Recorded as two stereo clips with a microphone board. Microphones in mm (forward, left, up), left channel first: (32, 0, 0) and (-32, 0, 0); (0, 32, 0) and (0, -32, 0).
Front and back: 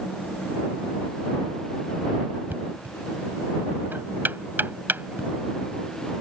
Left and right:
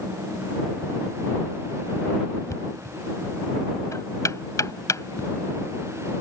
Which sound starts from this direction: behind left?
Knocking, at 2.5 s.